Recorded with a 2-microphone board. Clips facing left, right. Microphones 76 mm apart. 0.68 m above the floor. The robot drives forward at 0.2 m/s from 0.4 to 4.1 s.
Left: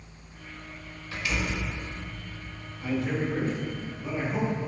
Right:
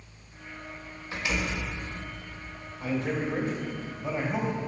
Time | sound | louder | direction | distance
1.1 | a door slam | even | 20° right (ahead or behind) | 1.6 m
2.8 | a man speaking | left 1 dB | 25° right (ahead or behind) | 3.5 m